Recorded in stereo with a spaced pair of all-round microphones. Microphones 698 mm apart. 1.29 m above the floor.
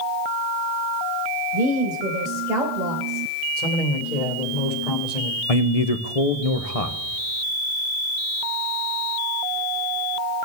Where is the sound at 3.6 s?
70° left (ahead or behind), 2.5 m.